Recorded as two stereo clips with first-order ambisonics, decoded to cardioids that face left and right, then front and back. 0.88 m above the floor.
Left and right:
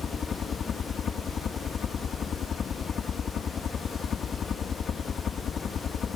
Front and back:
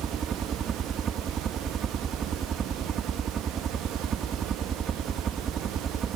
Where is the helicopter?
135° left.